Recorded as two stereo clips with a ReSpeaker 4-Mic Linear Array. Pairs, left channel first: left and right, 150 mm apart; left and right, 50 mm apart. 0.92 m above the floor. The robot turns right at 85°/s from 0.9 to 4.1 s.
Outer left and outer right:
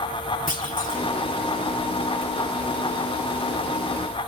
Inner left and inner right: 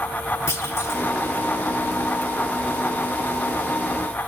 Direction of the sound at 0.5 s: 65° left (ahead or behind).